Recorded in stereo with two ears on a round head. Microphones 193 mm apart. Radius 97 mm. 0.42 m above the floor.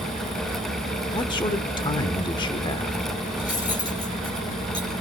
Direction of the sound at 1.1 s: 20° left (ahead or behind).